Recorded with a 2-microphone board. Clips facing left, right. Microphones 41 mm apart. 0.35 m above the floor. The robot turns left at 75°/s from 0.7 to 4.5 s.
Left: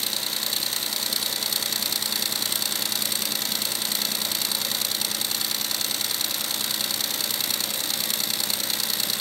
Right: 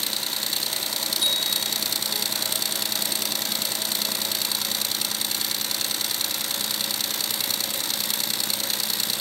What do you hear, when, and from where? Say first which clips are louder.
1.2 s a bicycle bell: right 3 dB; 70° right; by 1.9 s 125° right